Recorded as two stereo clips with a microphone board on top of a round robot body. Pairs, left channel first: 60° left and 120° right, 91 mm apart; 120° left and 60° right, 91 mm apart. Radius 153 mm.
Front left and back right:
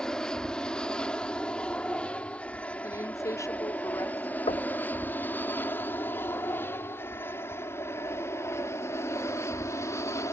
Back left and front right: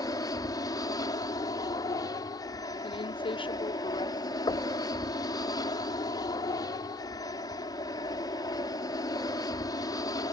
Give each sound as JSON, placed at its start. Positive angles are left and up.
{"t": 0.0, "sound": "an aircraft", "azimuth_deg": 140}
{"t": 2.8, "sound": "a woman speaking", "azimuth_deg": 110}
{"t": 4.5, "sound": "knocking", "azimuth_deg": 75}